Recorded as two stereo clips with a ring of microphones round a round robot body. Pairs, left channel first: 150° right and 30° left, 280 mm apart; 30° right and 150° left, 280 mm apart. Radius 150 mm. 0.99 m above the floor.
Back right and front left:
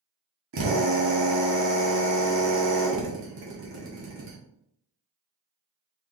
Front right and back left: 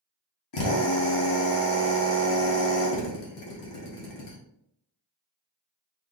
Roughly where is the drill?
Ahead.